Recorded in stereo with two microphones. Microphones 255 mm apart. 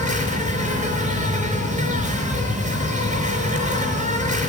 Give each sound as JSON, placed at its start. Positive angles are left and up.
{"t": 0.0, "sound": "an insect", "side_deg": -30, "distance_m": 3.5}